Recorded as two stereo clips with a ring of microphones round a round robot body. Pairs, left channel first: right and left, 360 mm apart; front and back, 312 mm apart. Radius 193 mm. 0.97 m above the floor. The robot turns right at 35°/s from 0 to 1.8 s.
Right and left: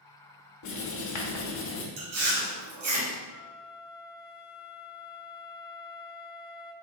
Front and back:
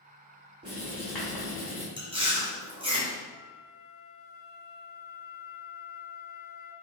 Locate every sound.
0.6 s writing: 110° right, 0.6 m; by 1.9 s 65° right, 0.6 m
2.0 s chewing: 105° left, 1.3 m
3.3 s a flute: 45° right, 0.6 m